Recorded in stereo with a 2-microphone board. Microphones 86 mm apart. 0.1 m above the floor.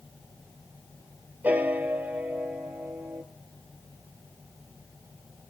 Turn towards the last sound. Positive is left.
turn(degrees=-20)  # may be behind; listen again after turning